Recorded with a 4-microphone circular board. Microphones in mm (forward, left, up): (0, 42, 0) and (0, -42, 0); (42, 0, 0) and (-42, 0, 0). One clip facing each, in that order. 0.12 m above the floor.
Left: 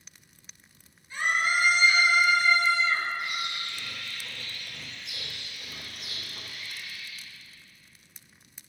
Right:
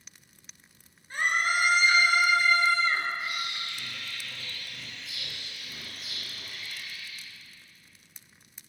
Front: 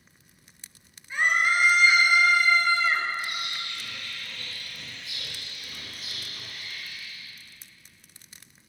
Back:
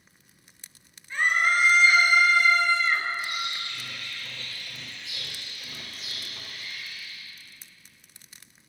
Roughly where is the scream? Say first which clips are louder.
Even, even; right.